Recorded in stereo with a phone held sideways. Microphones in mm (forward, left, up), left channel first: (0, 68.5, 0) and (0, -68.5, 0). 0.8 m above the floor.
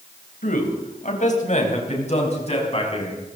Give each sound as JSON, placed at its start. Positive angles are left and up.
{"t": 0.4, "sound": "a man speaking", "side_deg": 65, "distance_m": 3.5}